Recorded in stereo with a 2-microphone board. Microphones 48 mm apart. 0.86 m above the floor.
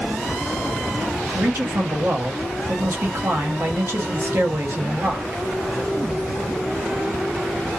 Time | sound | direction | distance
1.3 | a man speaking | 55° right (ahead or behind) | 1.1 m